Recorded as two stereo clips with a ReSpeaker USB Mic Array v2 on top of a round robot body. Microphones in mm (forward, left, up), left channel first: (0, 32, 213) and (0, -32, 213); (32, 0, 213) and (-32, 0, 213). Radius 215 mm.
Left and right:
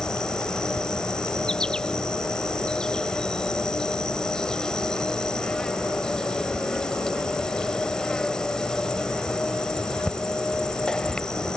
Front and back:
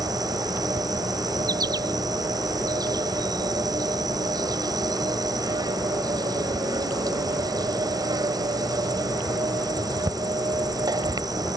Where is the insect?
170° left.